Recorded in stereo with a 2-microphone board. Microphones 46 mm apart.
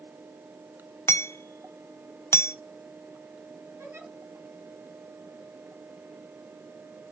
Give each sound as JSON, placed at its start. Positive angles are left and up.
{"t": 1.1, "sound": "hammering", "side_deg": 80, "distance_m": 0.7}
{"t": 3.8, "sound": "a giggle", "side_deg": -75, "distance_m": 6.5}